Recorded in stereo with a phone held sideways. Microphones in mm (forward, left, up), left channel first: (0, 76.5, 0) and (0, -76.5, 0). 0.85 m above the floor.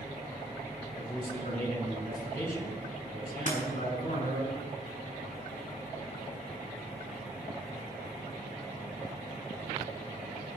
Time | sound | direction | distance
1.0 | a man speaking | 65° left (ahead or behind) | 8 m
3.5 | breaking glass | 55° left (ahead or behind) | 6 m